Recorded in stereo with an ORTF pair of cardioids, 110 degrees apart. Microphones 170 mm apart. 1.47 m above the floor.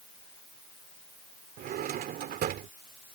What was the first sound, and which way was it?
A drawer, 65° right.